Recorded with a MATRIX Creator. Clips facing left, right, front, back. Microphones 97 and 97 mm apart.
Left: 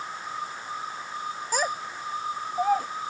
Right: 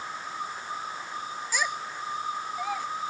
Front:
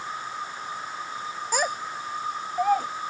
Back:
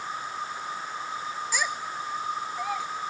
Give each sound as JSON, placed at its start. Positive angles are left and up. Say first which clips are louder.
{"t": 1.5, "sound": "a child speaking", "louder": "left 3 dB, front 6 dB", "azimuth_deg": 45}